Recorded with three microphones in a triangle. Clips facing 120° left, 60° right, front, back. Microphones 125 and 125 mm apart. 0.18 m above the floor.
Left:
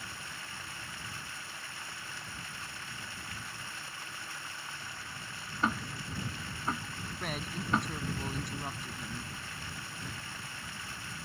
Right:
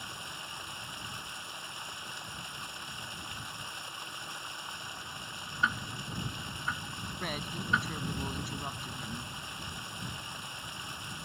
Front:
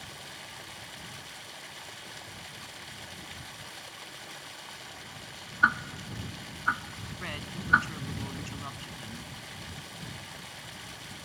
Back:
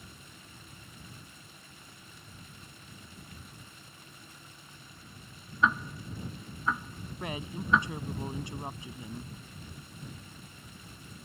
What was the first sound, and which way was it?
Running water, 10° left.